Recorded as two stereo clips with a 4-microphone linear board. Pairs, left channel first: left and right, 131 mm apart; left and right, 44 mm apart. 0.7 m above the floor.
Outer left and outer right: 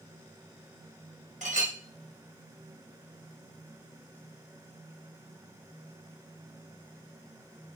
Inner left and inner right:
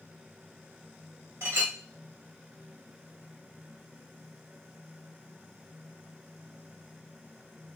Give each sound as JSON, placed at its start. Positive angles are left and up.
{"t": 1.4, "sound": "a clink", "side_deg": -65, "distance_m": 1.0}